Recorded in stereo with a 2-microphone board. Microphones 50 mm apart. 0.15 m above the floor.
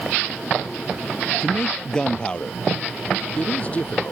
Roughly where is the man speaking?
Centre.